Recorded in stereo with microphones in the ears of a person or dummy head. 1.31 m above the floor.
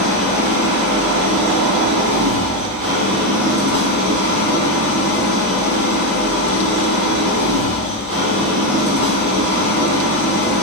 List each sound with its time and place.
0.0 s an engine running: 35° right (ahead or behind), 1.4 m